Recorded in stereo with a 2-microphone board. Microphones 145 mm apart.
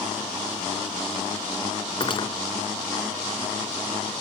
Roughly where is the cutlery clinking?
Left.